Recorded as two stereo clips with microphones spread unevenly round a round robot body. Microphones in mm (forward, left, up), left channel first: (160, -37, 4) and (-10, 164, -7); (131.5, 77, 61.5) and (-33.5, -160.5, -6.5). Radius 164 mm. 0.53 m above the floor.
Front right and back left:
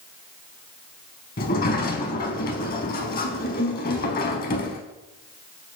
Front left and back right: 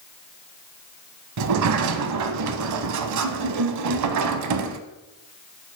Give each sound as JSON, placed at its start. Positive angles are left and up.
{"t": 1.4, "sound": "a sliding door", "azimuth_deg": -100, "distance_m": 0.5}